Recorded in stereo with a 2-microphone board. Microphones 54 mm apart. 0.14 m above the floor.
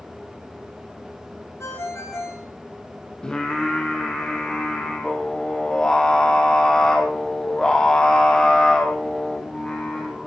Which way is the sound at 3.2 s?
15° left (ahead or behind).